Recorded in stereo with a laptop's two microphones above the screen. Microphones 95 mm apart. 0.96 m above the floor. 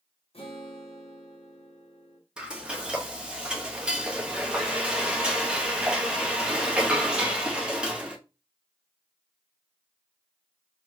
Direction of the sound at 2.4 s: 10° right (ahead or behind).